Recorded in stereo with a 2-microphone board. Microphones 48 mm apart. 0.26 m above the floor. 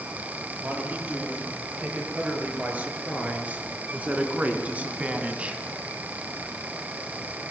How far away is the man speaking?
About 8 m.